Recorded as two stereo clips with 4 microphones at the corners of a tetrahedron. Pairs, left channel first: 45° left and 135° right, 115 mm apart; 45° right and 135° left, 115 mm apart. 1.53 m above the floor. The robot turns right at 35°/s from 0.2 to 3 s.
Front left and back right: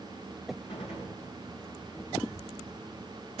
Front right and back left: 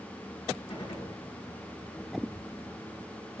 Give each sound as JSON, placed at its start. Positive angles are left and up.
{"t": 0.7, "sound": "a gunshot", "azimuth_deg": 0, "distance_m": 7.0}